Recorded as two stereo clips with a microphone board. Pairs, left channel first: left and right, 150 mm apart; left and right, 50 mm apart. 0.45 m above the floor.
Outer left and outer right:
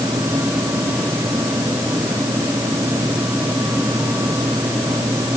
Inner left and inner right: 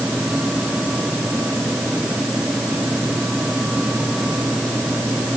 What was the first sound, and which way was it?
Only background noise.